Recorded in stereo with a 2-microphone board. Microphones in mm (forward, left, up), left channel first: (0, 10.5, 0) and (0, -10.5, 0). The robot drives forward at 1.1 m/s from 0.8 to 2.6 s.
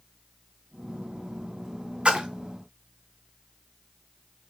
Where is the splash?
55° right (ahead or behind), 1.1 m; by 2.3 s 45° right (ahead or behind), 1.2 m.